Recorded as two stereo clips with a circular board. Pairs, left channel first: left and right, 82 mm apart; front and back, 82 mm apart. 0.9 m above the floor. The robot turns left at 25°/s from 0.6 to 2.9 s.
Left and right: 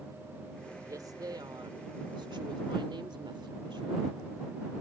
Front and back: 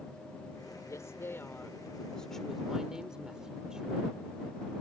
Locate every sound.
0.8 s a woman speaking: 45° right; by 4.2 s 100° right